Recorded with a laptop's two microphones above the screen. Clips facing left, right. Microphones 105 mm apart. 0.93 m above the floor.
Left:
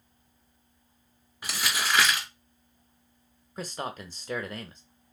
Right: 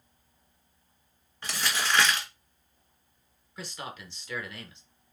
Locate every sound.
1.4 s crumpling: 10° left (ahead or behind), 1.6 m
3.6 s a man speaking: 45° left (ahead or behind), 0.7 m